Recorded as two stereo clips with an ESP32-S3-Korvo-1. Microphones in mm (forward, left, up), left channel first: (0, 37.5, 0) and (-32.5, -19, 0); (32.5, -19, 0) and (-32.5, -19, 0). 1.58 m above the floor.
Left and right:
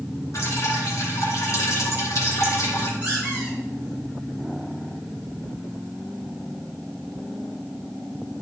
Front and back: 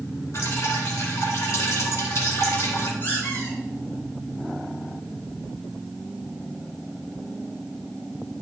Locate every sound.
0.3 s dripping: 30° left, 2.5 m
3.0 s a squeak: 55° right, 5 m